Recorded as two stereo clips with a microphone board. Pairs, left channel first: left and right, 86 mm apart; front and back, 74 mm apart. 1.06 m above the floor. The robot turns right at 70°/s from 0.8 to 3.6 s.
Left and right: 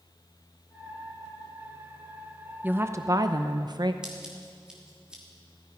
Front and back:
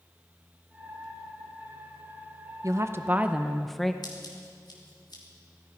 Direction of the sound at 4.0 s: 10° right.